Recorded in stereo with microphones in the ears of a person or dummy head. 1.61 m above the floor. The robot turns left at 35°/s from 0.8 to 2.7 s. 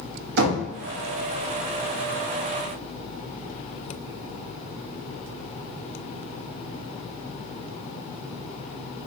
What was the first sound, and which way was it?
Knocking, 70° right (ahead or behind).